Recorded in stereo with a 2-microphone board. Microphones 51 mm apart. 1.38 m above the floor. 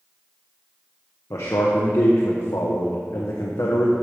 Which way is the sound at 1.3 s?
85° left.